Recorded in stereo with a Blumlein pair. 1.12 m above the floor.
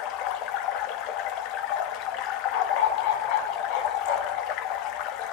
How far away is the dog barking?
About 3.5 m.